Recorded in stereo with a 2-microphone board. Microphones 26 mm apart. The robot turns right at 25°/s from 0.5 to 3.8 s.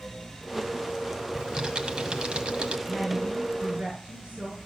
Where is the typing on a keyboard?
150° right, 1.4 m; by 2.8 s 115° right, 1.4 m.